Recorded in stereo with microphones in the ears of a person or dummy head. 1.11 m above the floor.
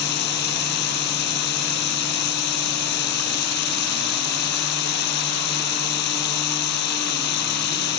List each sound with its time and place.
0.0 s running water: 60° left (ahead or behind)